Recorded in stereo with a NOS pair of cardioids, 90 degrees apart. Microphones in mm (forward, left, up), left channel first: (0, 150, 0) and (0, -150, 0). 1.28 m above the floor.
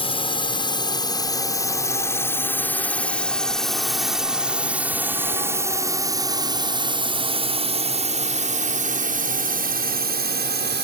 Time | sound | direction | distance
0.0 | a drone | 20° left | ?